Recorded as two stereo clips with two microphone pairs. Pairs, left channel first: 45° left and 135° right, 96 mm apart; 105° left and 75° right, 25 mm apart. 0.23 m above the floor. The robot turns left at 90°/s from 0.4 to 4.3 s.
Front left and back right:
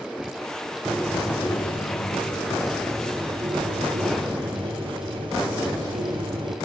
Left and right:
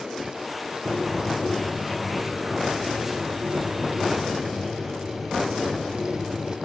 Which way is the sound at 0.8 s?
150° left.